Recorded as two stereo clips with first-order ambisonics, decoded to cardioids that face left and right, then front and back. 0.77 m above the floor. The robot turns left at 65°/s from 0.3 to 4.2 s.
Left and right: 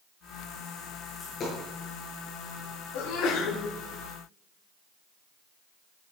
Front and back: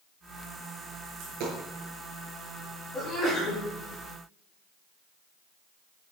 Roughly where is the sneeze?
Left.